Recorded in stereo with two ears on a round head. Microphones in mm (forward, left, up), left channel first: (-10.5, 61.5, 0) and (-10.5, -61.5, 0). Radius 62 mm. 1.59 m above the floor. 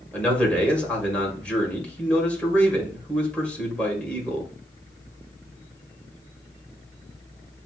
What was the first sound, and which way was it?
A man speaking, 10° left (ahead or behind).